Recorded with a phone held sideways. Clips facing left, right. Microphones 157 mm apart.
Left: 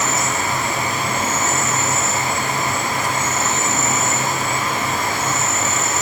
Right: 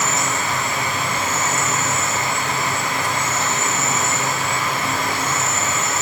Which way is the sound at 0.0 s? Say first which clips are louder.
Left 1 dB; 45° left (ahead or behind).